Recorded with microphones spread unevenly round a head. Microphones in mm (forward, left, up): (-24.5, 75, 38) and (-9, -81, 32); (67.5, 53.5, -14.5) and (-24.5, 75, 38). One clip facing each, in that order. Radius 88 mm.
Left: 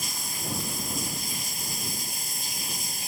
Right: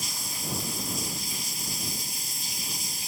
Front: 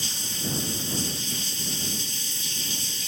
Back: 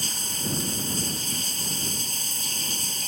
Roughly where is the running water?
Behind left.